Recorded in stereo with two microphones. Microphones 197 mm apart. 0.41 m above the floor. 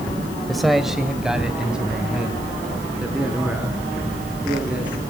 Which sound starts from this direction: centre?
A man speaking, at 0.5 s.